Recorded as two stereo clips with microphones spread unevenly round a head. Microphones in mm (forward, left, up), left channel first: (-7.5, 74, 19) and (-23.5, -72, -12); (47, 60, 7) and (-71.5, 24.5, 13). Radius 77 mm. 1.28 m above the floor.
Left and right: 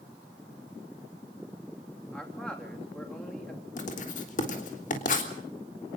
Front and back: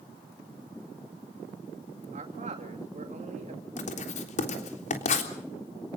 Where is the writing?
40° left, 3.5 m.